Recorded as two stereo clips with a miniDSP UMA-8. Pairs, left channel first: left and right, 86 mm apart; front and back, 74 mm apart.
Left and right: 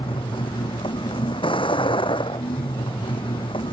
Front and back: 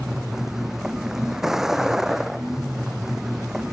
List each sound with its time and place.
0.0 s a vehicle: 95° left